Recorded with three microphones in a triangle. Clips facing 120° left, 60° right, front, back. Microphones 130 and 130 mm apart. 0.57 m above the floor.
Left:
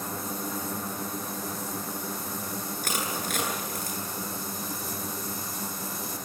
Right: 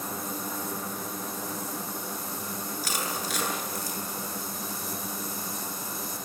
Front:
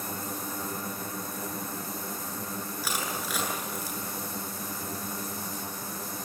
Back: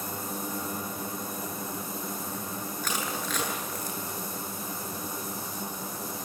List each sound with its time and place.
2.8 s crushing: 85° left, 9 m